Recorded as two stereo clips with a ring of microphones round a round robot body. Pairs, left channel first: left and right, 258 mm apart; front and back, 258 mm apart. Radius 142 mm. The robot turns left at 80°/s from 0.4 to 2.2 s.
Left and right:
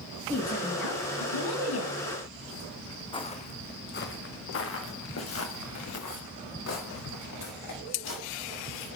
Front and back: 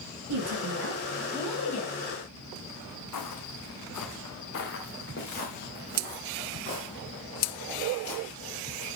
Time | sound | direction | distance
0.3 | a woman speaking | 170° left | 2.5 m
3.1 | footsteps | 20° left | 1.1 m